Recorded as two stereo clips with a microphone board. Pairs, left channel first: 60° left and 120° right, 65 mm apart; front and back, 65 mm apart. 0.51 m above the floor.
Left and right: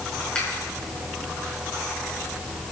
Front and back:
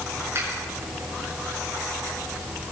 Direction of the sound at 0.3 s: 135° left.